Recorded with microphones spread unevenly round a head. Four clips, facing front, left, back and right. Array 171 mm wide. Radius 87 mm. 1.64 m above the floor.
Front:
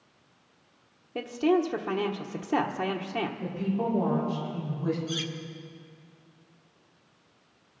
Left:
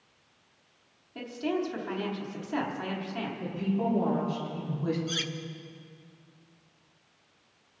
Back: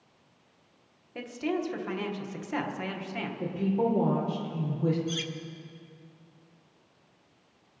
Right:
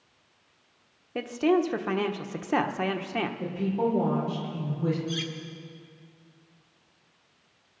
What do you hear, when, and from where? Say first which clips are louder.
1.1 s a woman speaking: right 7 dB, front 7 dB; 60° right, 1.2 m
3.4 s a woman speaking: right 1 dB, back 7 dB; 145° right, 6 m
5.1 s cutlery clinking: right 3 dB, even; 100° left, 0.8 m